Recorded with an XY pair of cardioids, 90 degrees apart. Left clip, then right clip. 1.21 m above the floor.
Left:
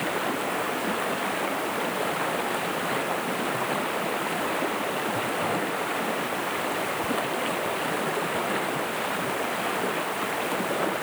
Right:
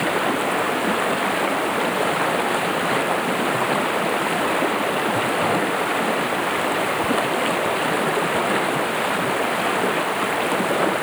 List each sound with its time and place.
0.0 s running water: 50° right